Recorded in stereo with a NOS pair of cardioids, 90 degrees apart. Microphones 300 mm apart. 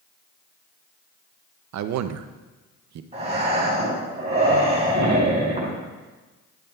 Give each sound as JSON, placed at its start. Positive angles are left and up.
{"t": 1.7, "sound": "a man speaking", "azimuth_deg": -60, "distance_m": 0.6}
{"t": 3.1, "sound": "breathing", "azimuth_deg": -20, "distance_m": 4.0}